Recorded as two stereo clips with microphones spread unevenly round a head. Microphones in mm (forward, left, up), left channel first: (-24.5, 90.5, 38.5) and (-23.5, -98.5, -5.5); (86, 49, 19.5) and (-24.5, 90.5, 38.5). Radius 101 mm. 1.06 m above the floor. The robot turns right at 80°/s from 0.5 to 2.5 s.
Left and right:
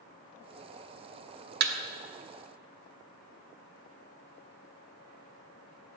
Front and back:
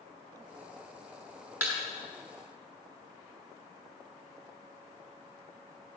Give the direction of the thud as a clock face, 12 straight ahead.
4 o'clock.